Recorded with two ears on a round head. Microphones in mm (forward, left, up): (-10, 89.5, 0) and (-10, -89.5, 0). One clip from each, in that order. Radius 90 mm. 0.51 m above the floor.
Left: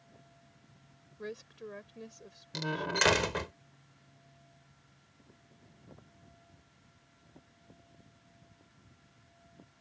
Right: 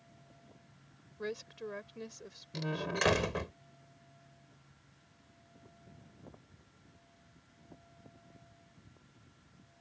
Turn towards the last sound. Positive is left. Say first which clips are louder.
# left 4 dB
turn(degrees=35)  # may be behind; listen again after turning